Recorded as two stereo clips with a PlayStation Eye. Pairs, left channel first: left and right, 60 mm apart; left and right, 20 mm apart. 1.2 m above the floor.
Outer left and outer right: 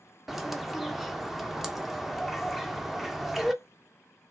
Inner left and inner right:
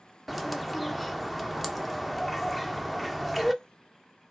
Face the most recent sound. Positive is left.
turn(degrees=-5)  # may be behind; listen again after turning